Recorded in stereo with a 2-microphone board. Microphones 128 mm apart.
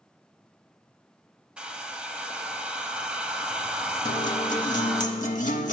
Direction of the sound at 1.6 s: 10° right (ahead or behind).